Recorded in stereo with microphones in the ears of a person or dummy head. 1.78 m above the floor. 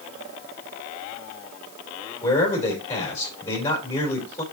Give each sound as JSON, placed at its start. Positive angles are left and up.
{"t": 2.2, "sound": "a man speaking", "side_deg": 20, "distance_m": 3.0}